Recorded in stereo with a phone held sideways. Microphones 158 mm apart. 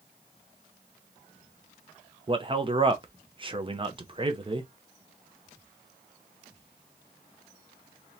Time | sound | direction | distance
2.3 | a man speaking | 30° right (ahead or behind) | 0.8 m